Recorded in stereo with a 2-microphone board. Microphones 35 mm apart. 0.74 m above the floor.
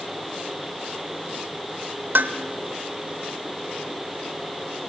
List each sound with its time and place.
2.1 s dishes clattering: 70° right (ahead or behind), 1.7 m